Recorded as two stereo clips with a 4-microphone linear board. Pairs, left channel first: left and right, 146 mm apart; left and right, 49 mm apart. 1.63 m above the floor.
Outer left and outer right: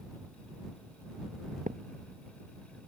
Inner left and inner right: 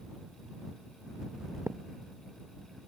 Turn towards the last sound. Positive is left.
turn(degrees=-65)  # may be behind; listen again after turning